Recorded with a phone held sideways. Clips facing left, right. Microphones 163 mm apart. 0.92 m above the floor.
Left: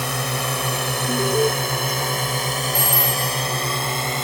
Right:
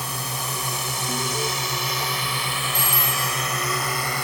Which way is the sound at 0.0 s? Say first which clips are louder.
Left 6 dB; 70° left (ahead or behind).